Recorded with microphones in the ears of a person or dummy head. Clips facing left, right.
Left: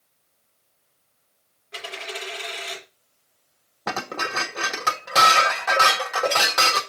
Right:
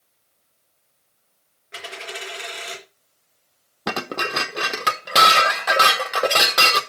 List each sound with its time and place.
1.7 s a dropped coin: 30° right (ahead or behind), 3.5 m
3.9 s dishes clattering: 45° right (ahead or behind), 1.0 m